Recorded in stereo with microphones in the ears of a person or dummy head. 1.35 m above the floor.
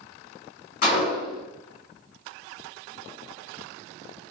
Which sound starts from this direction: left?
A gunshot, at 0.8 s.